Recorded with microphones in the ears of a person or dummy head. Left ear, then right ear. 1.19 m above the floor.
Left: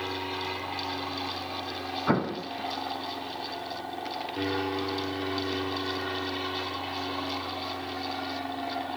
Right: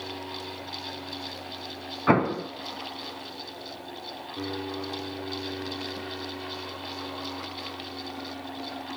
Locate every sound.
0.0 s an aircraft: 60° left (ahead or behind); by 9.0 s 30° left (ahead or behind)
2.1 s an explosion: 65° right (ahead or behind)